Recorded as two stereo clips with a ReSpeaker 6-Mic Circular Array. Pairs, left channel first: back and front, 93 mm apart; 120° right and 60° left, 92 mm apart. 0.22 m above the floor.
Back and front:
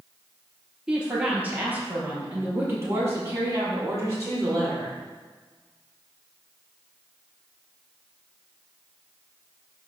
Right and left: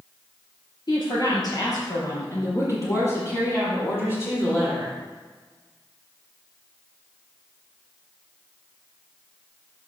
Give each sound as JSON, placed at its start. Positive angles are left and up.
{"t": 0.9, "sound": "a woman speaking", "azimuth_deg": -80, "distance_m": 3.5}